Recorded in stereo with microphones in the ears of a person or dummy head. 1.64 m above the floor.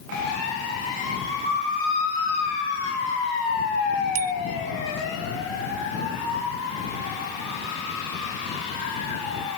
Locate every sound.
4.2 s a bicycle bell: 40° right (ahead or behind)